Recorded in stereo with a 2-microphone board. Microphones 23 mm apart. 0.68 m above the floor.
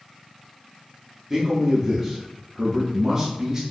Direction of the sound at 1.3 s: 20° right (ahead or behind).